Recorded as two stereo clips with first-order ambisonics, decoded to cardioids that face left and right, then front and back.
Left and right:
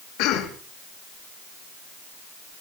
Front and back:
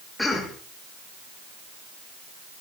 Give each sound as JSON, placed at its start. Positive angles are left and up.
{"t": 0.2, "sound": "a cough", "azimuth_deg": 85, "distance_m": 1.7}